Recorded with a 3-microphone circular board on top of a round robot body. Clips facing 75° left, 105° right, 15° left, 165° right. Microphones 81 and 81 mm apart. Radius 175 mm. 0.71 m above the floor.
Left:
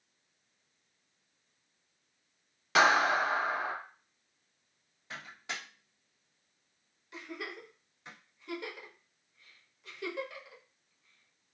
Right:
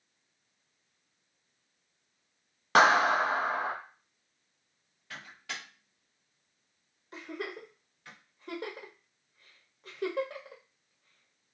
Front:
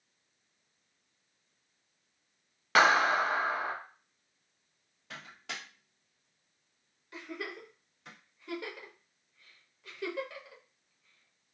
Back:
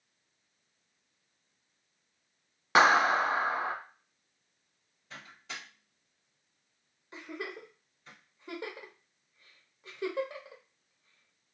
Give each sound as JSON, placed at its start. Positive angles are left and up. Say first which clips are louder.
{"t": 2.8, "sound": "a clap", "louder": "right 3 dB, back 1 dB", "azimuth_deg": -100, "distance_m": 1.0}
{"t": 5.1, "sound": "a microwave", "louder": "left 1 dB, front 2 dB", "azimuth_deg": 5, "distance_m": 0.9}
{"t": 7.1, "sound": "a giggle", "louder": "right 3 dB, even", "azimuth_deg": -115, "distance_m": 0.8}